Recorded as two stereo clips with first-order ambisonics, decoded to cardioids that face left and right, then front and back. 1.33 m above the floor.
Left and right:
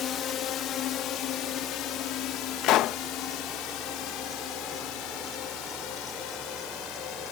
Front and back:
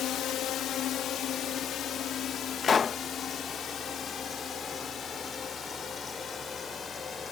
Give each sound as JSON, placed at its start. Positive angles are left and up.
{"t": 0.0, "sound": "a drone", "azimuth_deg": 40}
{"t": 2.6, "sound": "a pop", "azimuth_deg": 65}